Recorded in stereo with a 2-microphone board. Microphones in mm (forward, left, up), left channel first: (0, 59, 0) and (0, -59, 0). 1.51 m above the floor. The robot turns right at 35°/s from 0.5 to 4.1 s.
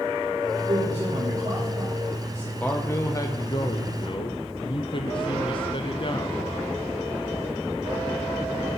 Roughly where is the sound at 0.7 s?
Right.